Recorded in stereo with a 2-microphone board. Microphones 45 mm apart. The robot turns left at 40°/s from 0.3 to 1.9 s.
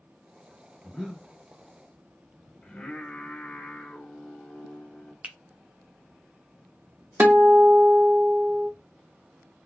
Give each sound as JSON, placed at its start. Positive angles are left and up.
{"t": 0.8, "sound": "breathing", "side_deg": 0, "distance_m": 1.0}
{"t": 2.6, "sound": "singing", "side_deg": 25, "distance_m": 1.2}
{"t": 5.2, "sound": "a finger snap", "side_deg": -30, "distance_m": 0.6}
{"t": 7.2, "sound": "a guitar", "side_deg": -35, "distance_m": 0.7}